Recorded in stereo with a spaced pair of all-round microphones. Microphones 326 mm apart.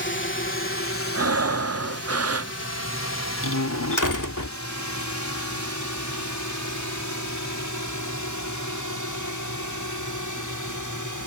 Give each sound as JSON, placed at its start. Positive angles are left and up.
{"t": 0.0, "sound": "a drone", "side_deg": 35}
{"t": 1.1, "sound": "breathing", "side_deg": -50}
{"t": 3.4, "sound": "a door slam", "side_deg": 70}